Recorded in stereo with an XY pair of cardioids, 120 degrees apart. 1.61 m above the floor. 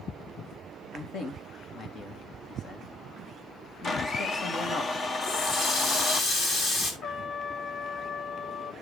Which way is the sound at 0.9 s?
55° left.